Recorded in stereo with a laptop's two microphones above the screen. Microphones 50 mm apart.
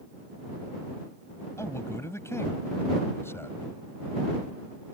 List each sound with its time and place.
1.6 s a man speaking: 65° left (ahead or behind); by 3.7 s 55° left (ahead or behind)